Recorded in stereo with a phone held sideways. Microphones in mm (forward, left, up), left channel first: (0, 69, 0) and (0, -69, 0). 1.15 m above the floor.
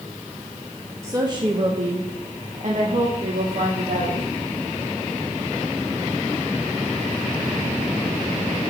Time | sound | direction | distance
1.0 | a woman speaking | 20° right (ahead or behind) | 1.1 m